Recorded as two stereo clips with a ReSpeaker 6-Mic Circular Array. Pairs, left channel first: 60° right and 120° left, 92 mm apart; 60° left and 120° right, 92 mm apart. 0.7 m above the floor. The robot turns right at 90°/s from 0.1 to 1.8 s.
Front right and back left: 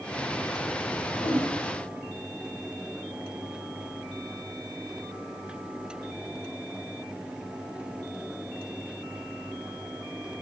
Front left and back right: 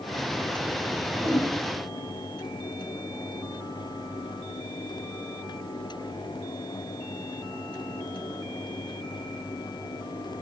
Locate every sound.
1.2 s a whoosh: 75° right, 3 m; by 1.5 s 50° right, 3 m